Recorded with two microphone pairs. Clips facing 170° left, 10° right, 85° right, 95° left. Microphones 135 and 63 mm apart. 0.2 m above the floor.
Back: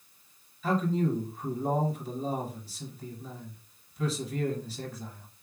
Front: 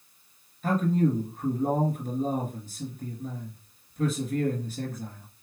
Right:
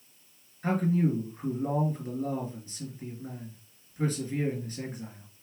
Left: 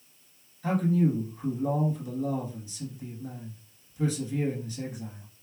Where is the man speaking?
40° right, 2.5 m.